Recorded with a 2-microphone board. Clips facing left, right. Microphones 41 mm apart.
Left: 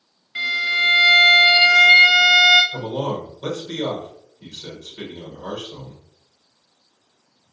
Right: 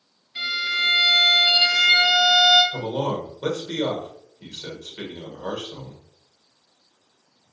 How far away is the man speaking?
About 1.2 m.